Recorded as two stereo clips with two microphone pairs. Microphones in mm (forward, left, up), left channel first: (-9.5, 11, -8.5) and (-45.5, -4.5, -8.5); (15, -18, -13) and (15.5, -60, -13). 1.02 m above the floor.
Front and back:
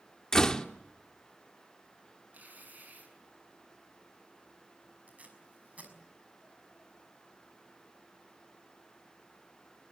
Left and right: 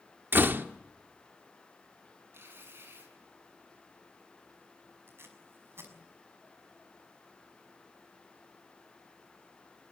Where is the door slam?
50° right, 1.4 m.